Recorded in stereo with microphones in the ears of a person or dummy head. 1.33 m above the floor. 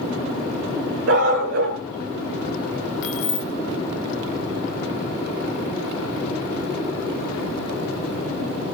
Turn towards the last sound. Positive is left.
turn(degrees=65)  # may be behind; listen again after turning